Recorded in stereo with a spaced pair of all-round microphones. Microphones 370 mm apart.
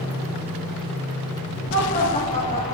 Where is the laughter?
30° left (ahead or behind), 8 m; by 2.8 s 20° left (ahead or behind), 8.5 m.